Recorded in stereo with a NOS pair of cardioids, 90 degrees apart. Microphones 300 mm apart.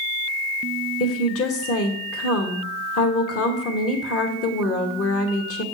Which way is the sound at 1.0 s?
50° left.